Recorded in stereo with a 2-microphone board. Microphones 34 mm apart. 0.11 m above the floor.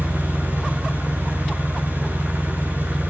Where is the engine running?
80° right, 5.5 m.